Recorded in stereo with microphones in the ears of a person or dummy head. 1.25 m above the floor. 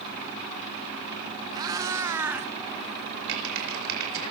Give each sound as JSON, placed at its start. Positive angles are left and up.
{"t": 1.5, "sound": "a cat meowing", "side_deg": -25, "distance_m": 1.8}
{"t": 3.3, "sound": "typing on a keyboard", "side_deg": -70, "distance_m": 5.0}